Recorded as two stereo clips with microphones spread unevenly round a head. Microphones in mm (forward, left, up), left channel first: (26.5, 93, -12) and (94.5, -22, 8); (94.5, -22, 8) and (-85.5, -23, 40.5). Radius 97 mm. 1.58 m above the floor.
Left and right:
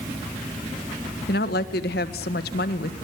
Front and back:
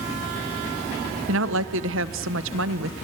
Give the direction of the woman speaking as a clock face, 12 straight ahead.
7 o'clock.